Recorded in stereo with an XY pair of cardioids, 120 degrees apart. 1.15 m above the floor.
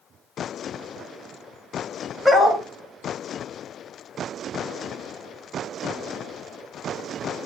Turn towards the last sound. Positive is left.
turn(degrees=10)